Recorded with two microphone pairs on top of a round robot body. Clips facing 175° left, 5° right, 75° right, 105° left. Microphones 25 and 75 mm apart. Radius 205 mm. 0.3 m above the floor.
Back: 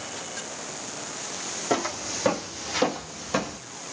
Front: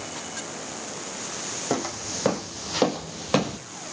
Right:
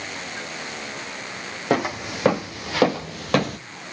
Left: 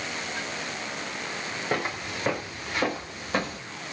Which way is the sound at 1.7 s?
90° right.